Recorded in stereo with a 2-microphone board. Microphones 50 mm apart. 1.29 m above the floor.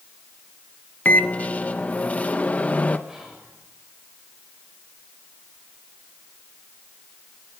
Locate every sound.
1.1 s a microwave: 30° left (ahead or behind), 1.1 m
3.1 s whispering: 10° right (ahead or behind), 7.5 m